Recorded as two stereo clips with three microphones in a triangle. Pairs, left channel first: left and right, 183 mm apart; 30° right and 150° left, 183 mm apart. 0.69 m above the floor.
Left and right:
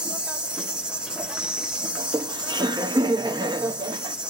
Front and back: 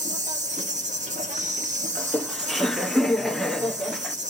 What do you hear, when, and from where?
0.0 s an insect: 170° right, 1.3 m
2.0 s laughter: 115° right, 0.7 m